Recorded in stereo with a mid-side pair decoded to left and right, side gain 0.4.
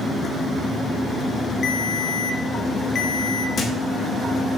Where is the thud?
60° left, 2 m.